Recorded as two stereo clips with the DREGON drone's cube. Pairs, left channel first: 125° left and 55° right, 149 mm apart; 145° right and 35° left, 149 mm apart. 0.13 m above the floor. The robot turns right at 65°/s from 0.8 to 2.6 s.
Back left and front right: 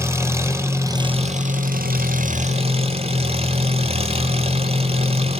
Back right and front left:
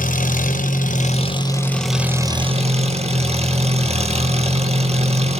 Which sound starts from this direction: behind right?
An engine running, at 0.0 s.